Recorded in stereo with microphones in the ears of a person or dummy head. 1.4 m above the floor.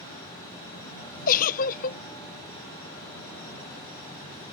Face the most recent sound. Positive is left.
turn(degrees=50)  # may be behind; listen again after turning